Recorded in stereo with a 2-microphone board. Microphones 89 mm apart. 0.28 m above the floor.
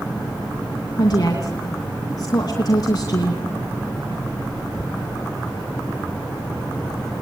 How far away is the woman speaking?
About 3 m.